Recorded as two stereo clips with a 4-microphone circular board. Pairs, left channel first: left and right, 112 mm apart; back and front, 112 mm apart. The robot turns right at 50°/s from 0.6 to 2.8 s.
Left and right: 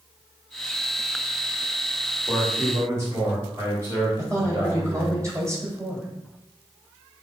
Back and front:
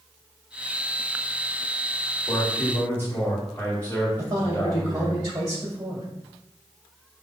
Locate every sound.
2.3 s a man speaking: 155° right, 1.4 m; by 5.2 s 125° right, 1.4 m
4.2 s a man speaking: 40° right, 1.8 m